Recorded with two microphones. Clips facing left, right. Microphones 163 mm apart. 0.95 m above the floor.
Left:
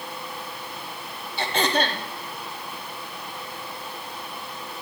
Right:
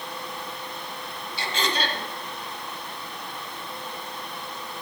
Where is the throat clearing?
55° left (ahead or behind), 1.3 m.